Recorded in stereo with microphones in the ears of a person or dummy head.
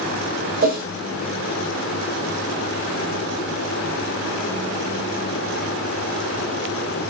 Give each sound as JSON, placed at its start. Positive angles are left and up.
{"t": 0.6, "sound": "a whoosh", "side_deg": -50, "distance_m": 0.5}